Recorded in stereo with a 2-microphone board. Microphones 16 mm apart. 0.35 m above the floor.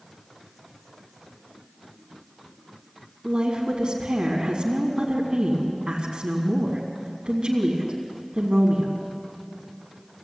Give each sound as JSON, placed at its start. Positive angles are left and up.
{"t": 3.2, "sound": "a woman speaking", "side_deg": -55, "distance_m": 3.5}